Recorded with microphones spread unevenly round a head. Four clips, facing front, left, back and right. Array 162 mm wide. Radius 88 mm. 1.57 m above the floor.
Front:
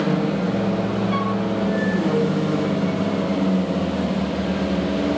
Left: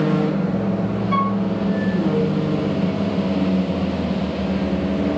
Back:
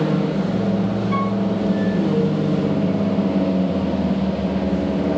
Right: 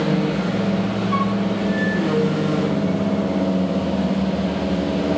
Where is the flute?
125° left, 0.9 m.